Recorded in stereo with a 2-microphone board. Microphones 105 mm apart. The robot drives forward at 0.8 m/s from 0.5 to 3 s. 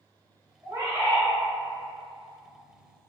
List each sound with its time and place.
0.6 s a bird: 35° right (ahead or behind), 0.9 m; by 1.3 s 25° right (ahead or behind), 1.2 m